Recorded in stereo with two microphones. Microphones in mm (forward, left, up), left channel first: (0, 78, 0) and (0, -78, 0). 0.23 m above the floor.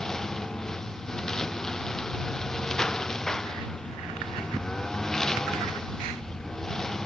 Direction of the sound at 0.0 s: 5° left (ahead or behind).